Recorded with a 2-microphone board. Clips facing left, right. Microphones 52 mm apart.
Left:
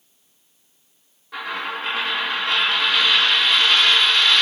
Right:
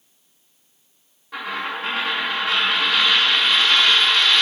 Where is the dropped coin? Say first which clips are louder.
Even; centre (ahead or behind), 3 m.